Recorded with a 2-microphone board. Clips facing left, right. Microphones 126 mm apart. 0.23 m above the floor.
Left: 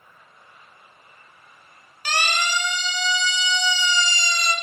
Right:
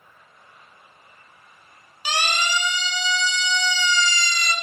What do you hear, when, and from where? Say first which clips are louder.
2.0 s a siren: even; 10° right (ahead or behind), 5.5 m; by 4.5 s 25° left (ahead or behind), 4 m